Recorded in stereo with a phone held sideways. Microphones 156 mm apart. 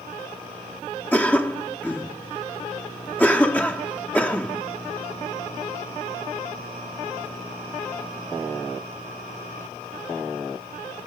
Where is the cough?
10° left (ahead or behind), 1.5 m.